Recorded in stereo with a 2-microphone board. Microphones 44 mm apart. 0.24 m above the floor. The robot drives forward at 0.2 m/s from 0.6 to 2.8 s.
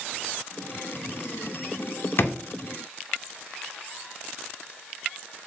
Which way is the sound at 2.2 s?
60° left (ahead or behind).